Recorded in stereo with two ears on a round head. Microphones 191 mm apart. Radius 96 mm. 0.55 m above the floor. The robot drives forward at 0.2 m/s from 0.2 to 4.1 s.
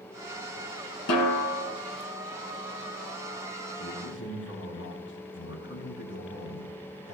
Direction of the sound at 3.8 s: 55° left (ahead or behind).